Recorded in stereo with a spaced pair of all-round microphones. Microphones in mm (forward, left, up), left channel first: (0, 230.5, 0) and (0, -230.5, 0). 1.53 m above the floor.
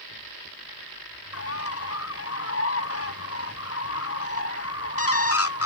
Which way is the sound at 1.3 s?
30° left (ahead or behind).